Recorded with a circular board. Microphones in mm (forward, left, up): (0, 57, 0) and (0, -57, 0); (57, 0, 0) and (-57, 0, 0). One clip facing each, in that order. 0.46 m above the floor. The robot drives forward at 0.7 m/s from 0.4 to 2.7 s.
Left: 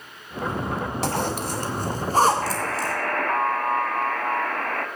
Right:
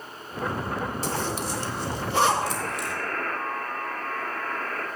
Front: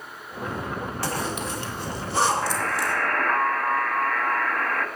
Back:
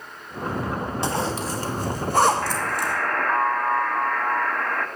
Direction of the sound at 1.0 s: 110° left.